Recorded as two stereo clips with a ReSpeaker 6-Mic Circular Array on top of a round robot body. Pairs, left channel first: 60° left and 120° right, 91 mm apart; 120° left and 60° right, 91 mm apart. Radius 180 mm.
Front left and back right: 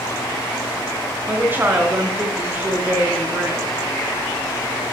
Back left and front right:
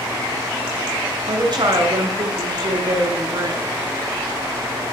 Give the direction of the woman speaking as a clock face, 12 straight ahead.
2 o'clock.